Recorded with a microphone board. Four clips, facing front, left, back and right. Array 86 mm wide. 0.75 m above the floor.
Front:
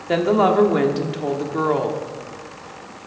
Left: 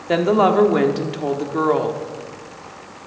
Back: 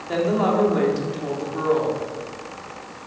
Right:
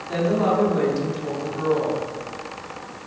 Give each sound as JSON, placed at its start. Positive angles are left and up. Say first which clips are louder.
{"t": 0.1, "sound": "a woman speaking", "louder": "left 6 dB, front 4 dB", "azimuth_deg": 55, "distance_m": 1.4}